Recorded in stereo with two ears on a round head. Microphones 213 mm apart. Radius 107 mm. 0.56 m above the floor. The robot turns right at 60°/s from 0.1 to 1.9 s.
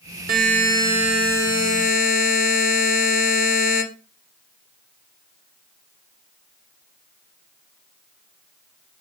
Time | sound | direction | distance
0.3 | a buzzer | 50° right | 2 m